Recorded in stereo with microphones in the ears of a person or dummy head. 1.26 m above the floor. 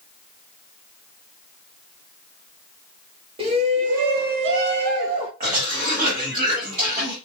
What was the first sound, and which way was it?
A shout, 25° right (ahead or behind).